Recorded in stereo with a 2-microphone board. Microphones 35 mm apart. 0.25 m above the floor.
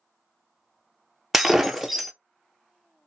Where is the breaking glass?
5° right (ahead or behind), 0.6 m.